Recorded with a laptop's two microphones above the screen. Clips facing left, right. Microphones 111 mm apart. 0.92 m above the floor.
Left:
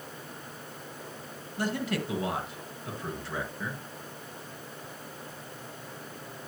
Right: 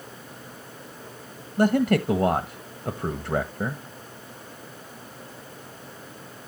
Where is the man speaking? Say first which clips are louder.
Right 11 dB; 55° right (ahead or behind), 1.0 m.